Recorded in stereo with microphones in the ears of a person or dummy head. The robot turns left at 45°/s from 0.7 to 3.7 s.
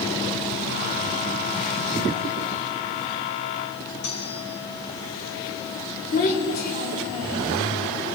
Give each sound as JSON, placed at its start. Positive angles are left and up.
{"t": 4.0, "sound": "cutlery clinking", "side_deg": 65, "distance_m": 4.5}
{"t": 6.1, "sound": "a child speaking", "side_deg": 50, "distance_m": 4.0}